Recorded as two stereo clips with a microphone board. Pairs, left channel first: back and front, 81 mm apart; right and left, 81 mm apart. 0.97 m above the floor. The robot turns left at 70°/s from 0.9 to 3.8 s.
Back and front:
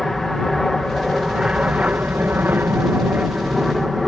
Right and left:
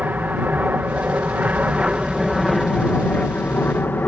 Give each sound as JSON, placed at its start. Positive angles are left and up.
{"t": 0.0, "sound": "an aircraft", "azimuth_deg": 100}